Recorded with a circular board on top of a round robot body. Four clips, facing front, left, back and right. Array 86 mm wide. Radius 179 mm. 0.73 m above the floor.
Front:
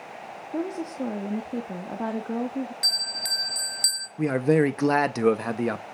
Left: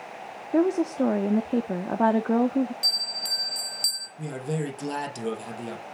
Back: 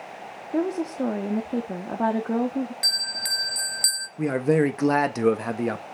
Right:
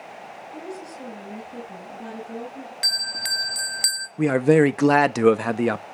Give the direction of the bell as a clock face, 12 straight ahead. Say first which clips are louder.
Right 5 dB, back 2 dB; 3 o'clock.